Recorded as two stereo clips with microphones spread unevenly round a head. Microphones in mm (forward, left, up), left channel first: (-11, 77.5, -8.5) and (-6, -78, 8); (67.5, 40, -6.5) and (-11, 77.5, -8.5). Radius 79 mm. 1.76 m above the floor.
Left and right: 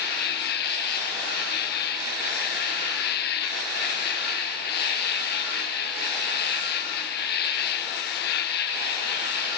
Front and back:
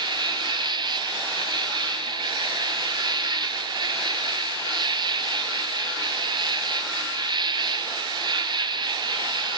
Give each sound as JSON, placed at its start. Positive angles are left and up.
{"t": 0.0, "sound": "an insect", "azimuth_deg": 120, "distance_m": 1.6}